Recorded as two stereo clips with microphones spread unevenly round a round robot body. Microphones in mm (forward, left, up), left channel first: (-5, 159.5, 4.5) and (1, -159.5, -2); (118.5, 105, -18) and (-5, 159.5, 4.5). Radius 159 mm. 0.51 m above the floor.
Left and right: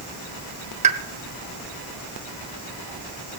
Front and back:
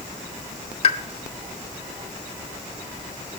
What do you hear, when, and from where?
0.8 s a pop: 25° right, 0.6 m